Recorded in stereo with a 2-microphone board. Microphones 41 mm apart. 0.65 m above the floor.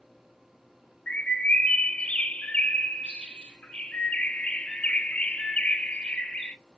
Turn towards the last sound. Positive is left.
turn(degrees=25)  # may be behind; listen again after turning